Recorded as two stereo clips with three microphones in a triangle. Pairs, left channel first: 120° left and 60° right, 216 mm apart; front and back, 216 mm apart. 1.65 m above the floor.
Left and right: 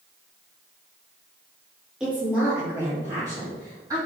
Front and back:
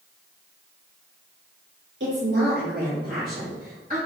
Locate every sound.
2.0 s a woman speaking: 145° right, 2.5 m; by 4.0 s 130° right, 5.5 m